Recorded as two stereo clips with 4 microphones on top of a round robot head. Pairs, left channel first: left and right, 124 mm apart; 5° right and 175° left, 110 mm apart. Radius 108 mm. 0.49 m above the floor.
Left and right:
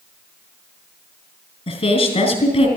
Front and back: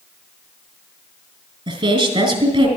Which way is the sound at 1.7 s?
135° left.